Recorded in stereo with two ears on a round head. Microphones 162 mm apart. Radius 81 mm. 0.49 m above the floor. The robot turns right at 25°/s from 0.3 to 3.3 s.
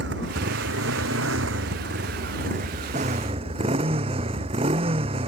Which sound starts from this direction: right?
A motorcycle, at 0.0 s.